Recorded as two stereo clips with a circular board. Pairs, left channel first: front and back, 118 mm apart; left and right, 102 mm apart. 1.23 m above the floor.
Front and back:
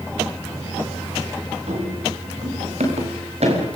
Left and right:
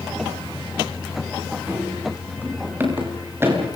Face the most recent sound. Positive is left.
turn(degrees=-155)